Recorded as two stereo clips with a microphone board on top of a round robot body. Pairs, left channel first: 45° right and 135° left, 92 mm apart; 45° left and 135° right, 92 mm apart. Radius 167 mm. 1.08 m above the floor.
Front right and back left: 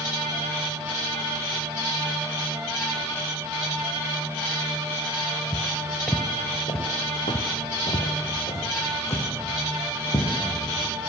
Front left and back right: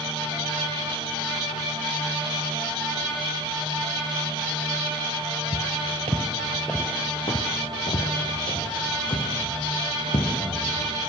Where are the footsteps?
150° right, 1.5 m; by 10.3 s 10° left, 5 m.